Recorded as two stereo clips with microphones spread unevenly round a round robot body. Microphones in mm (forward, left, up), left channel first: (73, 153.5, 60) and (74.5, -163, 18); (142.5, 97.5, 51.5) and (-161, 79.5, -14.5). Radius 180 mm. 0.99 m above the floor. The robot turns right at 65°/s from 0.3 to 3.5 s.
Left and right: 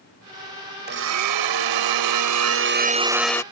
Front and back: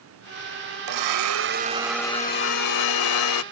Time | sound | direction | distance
0.9 | a blender | 155° right | ?